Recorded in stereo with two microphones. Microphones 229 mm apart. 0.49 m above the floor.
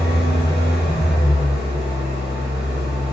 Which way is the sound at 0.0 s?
45° left (ahead or behind).